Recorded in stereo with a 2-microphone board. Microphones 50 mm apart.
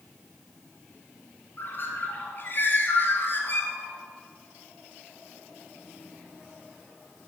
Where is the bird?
45° left (ahead or behind), 2.5 m.